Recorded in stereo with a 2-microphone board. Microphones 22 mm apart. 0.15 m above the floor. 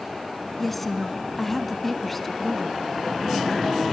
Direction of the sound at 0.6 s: 5° left (ahead or behind).